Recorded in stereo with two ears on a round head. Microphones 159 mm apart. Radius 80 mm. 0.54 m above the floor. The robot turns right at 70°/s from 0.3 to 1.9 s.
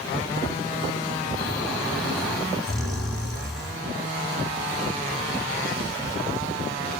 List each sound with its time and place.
1.4 s snoring: 145° left, 1.9 m; by 3.8 s straight behind, 1.9 m